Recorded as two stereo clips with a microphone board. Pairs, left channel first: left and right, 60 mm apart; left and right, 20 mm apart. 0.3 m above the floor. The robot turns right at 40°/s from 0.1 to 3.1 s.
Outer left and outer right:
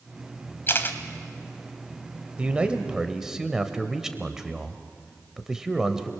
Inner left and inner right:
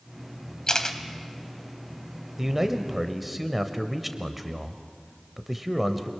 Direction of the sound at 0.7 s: 40° left (ahead or behind).